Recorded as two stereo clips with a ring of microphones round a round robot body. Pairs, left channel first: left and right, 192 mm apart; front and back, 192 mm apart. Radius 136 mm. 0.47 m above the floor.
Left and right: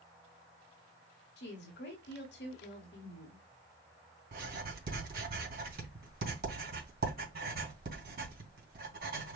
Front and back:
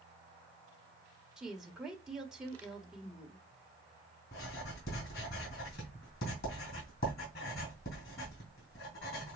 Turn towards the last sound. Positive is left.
turn(degrees=-55)